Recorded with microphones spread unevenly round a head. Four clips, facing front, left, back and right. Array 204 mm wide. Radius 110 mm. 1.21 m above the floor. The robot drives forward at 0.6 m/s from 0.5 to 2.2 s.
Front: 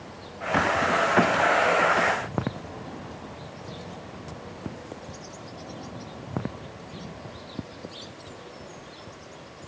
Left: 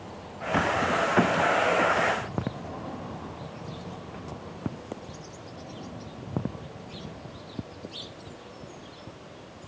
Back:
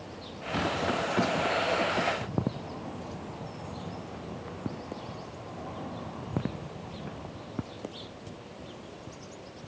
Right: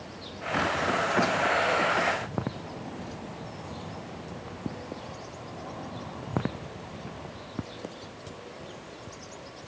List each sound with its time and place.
Only background noise.